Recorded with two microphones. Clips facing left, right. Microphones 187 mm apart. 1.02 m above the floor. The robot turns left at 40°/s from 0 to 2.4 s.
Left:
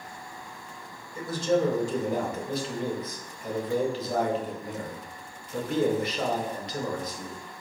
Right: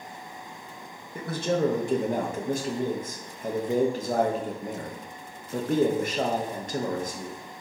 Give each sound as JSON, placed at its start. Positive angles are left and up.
{"t": 1.1, "sound": "a man speaking", "azimuth_deg": -75, "distance_m": 0.8}